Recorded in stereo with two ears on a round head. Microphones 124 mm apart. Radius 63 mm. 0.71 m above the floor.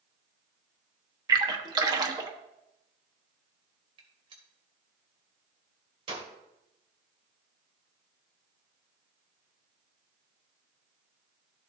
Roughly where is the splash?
Right.